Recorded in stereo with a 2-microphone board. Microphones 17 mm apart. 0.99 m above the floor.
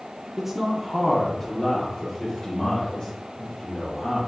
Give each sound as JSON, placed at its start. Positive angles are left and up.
{"t": 0.4, "sound": "a man speaking", "side_deg": -20, "distance_m": 0.8}